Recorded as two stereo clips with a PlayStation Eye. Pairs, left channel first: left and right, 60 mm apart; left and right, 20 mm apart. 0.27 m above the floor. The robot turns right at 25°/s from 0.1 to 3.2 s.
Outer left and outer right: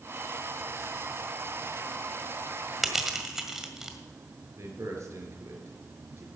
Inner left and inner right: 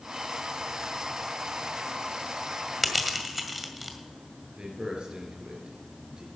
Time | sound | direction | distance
2.8 | crushing | 5° right (ahead or behind) | 1.7 m
4.6 | a man speaking | 50° right (ahead or behind) | 4 m